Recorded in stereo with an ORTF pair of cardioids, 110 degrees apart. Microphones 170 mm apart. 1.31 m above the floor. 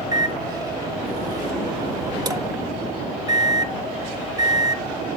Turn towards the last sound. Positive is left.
turn(degrees=-20)